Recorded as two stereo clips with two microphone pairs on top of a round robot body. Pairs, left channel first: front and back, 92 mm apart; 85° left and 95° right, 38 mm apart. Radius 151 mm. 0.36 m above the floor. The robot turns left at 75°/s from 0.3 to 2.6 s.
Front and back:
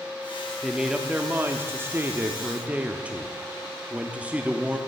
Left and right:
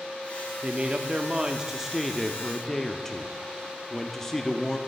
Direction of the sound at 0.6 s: 85° right.